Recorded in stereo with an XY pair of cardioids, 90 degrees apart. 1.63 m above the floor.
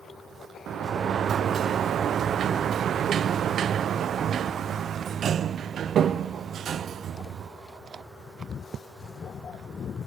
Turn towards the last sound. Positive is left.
turn(degrees=-70)